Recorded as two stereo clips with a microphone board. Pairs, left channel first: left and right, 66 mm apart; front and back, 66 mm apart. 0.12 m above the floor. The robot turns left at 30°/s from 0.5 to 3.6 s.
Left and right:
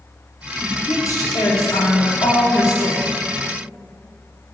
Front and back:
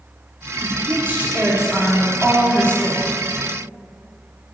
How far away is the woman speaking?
About 7 m.